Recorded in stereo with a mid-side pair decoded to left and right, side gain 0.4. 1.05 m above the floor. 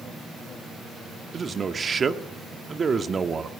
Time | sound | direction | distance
1.3 | a man speaking | 40° right | 1.8 m